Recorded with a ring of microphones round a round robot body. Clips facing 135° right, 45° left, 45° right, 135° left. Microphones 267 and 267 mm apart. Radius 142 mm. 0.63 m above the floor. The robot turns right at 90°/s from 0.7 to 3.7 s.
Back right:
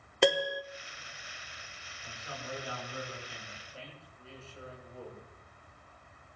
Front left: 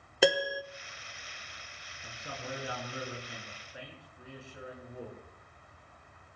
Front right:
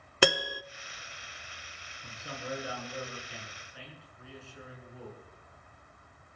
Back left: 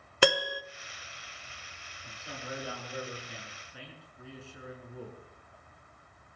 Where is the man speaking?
30° right, 8 m; by 5.2 s 120° left, 8 m.